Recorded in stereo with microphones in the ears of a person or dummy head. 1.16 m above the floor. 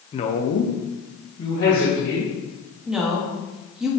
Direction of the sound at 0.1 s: 25° left (ahead or behind).